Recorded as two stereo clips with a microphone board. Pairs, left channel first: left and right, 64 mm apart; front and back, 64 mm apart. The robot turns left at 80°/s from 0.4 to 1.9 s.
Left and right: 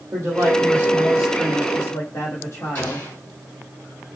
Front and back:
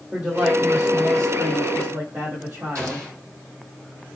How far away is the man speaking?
About 4.5 m.